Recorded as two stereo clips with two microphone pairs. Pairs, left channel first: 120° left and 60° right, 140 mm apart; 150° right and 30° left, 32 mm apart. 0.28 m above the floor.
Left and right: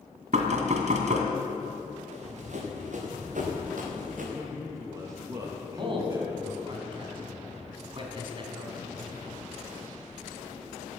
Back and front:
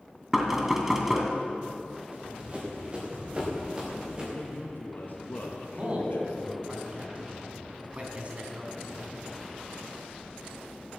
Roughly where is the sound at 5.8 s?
Ahead.